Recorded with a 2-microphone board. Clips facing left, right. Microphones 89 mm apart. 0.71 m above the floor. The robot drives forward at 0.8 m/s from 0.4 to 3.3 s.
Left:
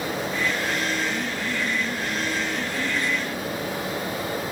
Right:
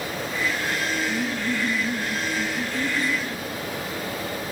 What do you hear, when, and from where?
1.1 s laughter: 20° right (ahead or behind), 1.2 m; by 3.5 s 10° right (ahead or behind), 1.8 m